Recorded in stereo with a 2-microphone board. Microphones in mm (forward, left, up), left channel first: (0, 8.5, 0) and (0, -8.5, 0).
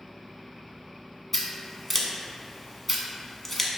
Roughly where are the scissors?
Centre.